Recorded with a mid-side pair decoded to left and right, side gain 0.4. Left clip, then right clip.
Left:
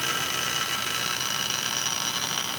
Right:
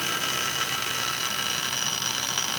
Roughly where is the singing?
I don't hear singing.